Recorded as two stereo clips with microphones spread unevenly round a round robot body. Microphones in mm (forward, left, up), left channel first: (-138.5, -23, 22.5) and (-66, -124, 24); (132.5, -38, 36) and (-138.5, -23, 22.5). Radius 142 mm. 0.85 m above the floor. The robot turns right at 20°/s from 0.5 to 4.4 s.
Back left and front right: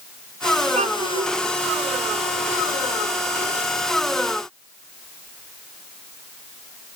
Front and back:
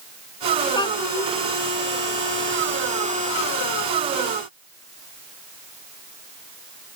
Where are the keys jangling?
No keys jangling in this recording.